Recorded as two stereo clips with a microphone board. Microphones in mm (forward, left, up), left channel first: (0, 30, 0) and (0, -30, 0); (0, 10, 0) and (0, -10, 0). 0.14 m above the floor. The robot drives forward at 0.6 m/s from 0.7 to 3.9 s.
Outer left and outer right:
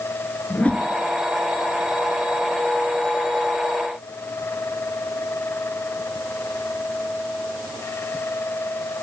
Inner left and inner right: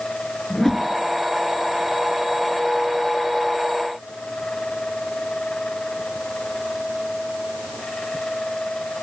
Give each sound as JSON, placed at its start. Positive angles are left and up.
{"t": 0.5, "sound": "a whoosh", "side_deg": 25, "distance_m": 0.7}